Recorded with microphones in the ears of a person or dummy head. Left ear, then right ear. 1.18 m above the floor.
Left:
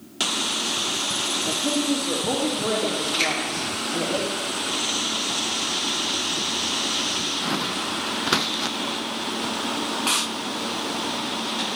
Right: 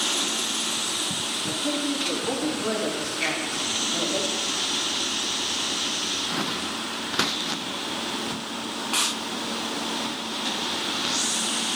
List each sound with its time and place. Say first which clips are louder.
1.5 s a woman speaking: left 3 dB; 5° left (ahead or behind), 2.5 m
3.2 s a finger snap: left 3 dB; 80° left, 9 m